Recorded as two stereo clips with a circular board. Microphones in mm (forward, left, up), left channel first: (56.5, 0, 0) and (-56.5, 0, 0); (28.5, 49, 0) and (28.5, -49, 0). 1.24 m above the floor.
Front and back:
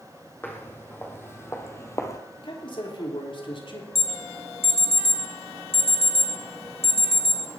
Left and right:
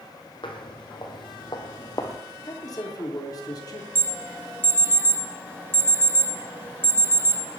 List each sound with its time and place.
0.4 s footsteps: 70° left, 3 m; by 2.2 s 55° left, 1.7 m
2.4 s a man speaking: 40° left, 3.5 m
4.0 s an alarm: 25° right, 2.5 m